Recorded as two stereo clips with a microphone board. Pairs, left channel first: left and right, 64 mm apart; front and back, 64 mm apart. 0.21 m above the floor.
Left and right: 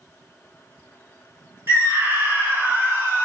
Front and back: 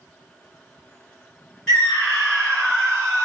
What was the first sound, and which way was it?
A scream, 75° right.